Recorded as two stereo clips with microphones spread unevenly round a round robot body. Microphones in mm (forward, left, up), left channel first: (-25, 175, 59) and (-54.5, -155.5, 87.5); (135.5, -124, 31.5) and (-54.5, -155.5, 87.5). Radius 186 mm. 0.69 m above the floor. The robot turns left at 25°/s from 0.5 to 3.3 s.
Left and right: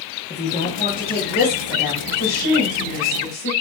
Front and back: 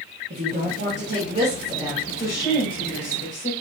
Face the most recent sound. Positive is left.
turn(degrees=50)